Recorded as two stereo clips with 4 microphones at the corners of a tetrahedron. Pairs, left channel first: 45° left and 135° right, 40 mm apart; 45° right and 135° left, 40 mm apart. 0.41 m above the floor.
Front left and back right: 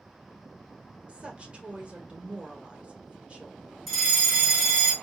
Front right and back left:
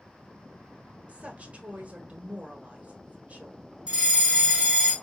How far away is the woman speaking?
About 1.1 m.